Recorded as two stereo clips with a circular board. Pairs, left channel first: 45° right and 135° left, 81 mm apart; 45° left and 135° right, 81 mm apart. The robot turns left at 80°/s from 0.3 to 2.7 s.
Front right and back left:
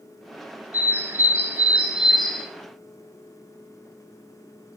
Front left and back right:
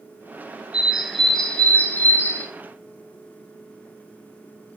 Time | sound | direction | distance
0.7 | a bird | 165° left | 0.8 m